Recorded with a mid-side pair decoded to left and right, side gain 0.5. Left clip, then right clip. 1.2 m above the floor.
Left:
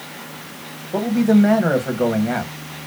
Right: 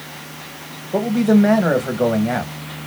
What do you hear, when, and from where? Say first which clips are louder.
0.9 s a man speaking: right 1 dB; 10° right, 1.1 m